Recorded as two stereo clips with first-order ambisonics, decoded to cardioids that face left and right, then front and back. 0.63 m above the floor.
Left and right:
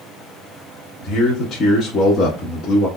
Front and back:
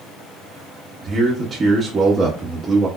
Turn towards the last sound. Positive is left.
turn(degrees=125)